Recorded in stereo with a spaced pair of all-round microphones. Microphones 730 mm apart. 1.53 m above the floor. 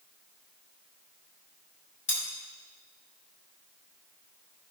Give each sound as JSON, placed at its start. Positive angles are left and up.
{"t": 2.1, "sound": "cutlery clinking", "side_deg": 45, "distance_m": 3.5}